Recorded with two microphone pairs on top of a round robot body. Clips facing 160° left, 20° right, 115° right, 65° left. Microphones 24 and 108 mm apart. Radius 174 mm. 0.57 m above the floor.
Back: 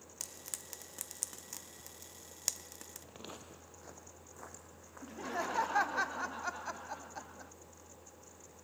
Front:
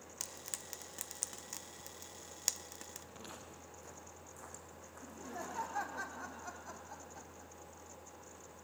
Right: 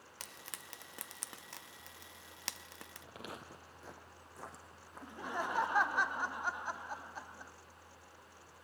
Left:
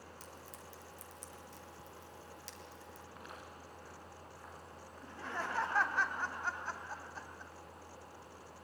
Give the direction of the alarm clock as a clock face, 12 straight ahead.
I don't hear an alarm clock.